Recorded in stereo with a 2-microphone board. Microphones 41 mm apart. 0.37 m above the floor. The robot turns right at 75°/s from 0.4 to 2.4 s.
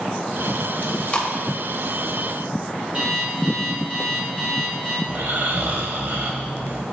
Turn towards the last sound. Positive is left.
turn(degrees=-55)  # may be behind; listen again after turning